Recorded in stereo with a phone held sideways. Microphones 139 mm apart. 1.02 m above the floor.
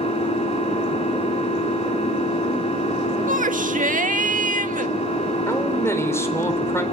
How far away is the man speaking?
About 4 m.